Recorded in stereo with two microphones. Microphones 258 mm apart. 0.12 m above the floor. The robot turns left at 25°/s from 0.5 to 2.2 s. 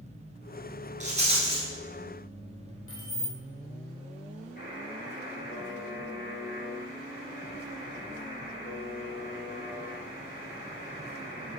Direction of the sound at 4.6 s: 40° left (ahead or behind).